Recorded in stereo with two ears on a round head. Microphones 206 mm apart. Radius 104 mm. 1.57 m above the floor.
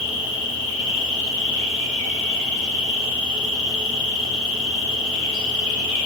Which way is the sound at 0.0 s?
55° left (ahead or behind).